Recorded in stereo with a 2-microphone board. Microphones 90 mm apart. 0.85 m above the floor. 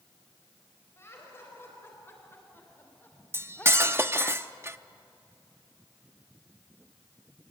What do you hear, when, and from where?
1.0 s laughter: 30° left (ahead or behind), 4.5 m; by 4.3 s 15° left (ahead or behind), 1.8 m
3.3 s cutlery clinking: 30° right (ahead or behind), 0.5 m